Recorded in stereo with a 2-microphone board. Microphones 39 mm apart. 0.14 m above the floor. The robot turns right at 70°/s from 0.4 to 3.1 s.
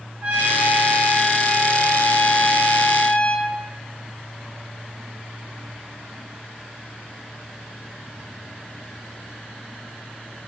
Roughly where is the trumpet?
Ahead right.